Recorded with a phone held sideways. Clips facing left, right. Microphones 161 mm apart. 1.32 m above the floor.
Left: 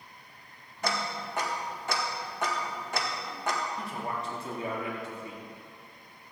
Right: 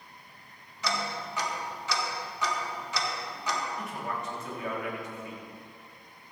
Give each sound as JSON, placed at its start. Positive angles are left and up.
{"t": 0.8, "sound": "ticking", "side_deg": 50, "distance_m": 1.8}
{"t": 3.8, "sound": "a man speaking", "side_deg": 30, "distance_m": 3.5}